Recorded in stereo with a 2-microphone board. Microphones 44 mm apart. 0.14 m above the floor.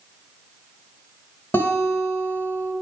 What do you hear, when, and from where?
1.5 s a guitar: 55° left (ahead or behind), 2.5 m